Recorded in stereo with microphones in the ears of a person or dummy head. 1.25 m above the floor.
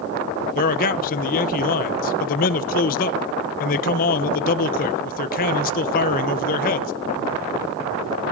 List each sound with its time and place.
0.6 s a man speaking: 45° left (ahead or behind), 0.9 m